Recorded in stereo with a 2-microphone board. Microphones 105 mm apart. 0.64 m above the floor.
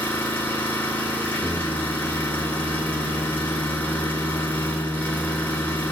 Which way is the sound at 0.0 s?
20° left (ahead or behind).